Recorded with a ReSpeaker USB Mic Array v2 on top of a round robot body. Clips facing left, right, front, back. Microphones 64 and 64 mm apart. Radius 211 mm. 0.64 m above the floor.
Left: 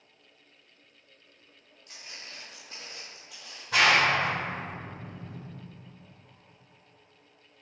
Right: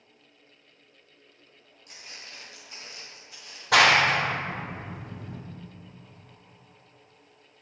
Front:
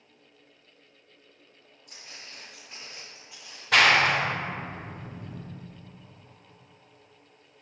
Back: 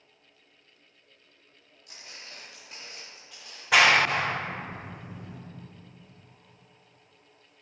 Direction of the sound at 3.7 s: 100° right.